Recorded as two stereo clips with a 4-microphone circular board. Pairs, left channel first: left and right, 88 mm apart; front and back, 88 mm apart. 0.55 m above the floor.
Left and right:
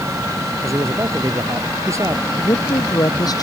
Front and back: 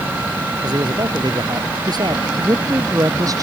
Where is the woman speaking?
135° left.